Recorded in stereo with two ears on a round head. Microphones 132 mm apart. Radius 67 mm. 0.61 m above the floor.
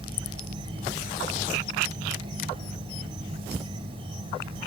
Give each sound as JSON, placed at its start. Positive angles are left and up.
{"t": 0.0, "sound": "an insect", "side_deg": -40, "distance_m": 4.0}